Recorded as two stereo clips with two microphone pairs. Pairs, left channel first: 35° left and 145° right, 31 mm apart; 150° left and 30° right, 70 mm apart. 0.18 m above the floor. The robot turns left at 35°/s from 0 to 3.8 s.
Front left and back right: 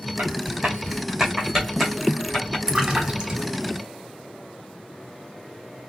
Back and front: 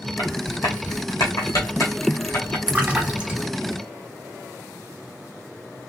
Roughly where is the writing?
Behind.